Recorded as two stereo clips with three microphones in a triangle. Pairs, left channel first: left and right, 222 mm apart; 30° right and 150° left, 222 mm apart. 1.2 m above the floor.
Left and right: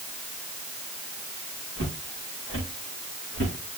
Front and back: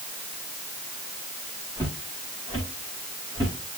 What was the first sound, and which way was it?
Footsteps, 75° left.